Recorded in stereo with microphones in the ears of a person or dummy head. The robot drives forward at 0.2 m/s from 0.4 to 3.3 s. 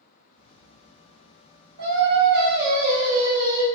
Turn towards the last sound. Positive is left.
turn(degrees=-40)  # may be behind; listen again after turning